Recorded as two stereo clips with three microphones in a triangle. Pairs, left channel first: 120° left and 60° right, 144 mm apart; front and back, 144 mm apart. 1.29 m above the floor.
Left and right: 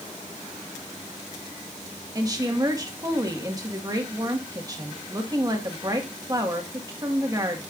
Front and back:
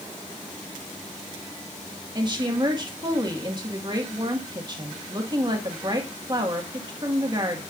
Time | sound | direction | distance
2.1 | a woman speaking | 125° right | 1.8 m